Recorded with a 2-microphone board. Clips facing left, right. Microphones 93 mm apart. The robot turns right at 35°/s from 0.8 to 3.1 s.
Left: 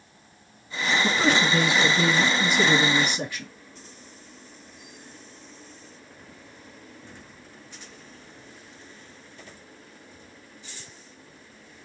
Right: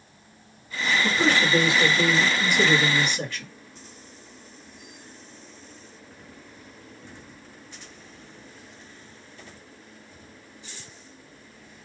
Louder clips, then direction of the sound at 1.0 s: Even; 20° left (ahead or behind).